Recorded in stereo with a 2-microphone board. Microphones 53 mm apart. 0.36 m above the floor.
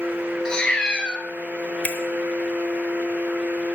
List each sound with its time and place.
0.5 s a cat meowing: 20° left (ahead or behind), 0.9 m
1.8 s a finger snap: 35° left (ahead or behind), 0.8 m